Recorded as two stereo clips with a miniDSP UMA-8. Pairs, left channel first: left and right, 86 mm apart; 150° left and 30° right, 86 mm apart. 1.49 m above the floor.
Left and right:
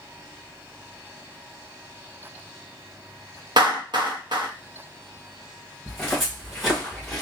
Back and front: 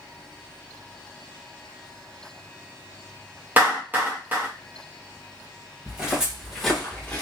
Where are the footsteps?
10° left, 1.5 m; by 7.2 s 175° right, 1.5 m.